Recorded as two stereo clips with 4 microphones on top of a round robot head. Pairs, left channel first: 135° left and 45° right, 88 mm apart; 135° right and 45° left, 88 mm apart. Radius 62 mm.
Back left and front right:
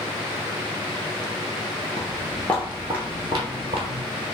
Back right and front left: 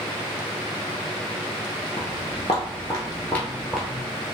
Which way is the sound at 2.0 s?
175° right.